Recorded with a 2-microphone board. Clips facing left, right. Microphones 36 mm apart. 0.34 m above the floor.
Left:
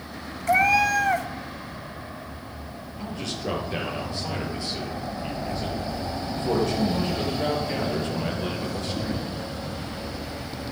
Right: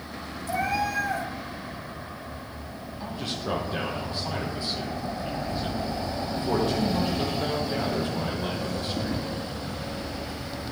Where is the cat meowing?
65° left (ahead or behind), 0.6 m.